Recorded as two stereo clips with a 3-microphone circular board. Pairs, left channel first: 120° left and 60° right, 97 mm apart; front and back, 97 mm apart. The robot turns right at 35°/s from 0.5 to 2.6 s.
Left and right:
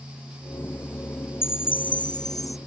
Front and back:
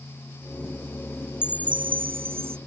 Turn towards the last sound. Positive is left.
turn(degrees=180)